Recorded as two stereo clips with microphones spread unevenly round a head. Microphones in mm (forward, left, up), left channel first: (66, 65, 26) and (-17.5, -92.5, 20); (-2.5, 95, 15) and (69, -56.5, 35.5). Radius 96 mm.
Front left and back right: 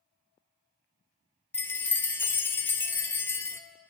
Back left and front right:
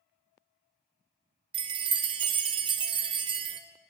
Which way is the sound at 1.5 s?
15° right.